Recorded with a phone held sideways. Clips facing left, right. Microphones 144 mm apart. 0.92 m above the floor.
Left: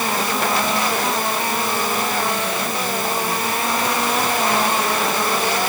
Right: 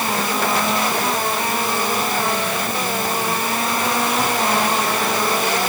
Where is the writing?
No writing in this recording.